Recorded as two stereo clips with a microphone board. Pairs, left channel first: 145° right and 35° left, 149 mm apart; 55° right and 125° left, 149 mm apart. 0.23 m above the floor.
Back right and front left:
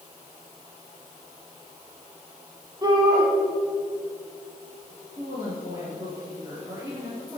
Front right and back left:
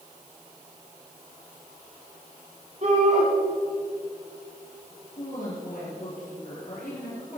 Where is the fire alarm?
I don't hear a fire alarm.